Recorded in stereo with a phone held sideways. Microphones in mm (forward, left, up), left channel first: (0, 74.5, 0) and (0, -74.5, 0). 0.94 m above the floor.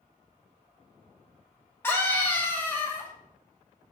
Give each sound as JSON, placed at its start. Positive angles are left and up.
{"t": 1.8, "sound": "a scream", "side_deg": 15, "distance_m": 2.0}